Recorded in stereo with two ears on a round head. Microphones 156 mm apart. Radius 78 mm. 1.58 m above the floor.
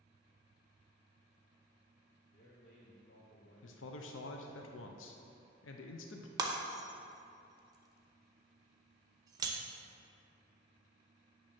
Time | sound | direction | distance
2.3 | a man speaking | 60° left (ahead or behind) | 2 m
3.6 | a man speaking | 80° left | 0.6 m
6.4 | breaking glass | 20° right (ahead or behind) | 0.7 m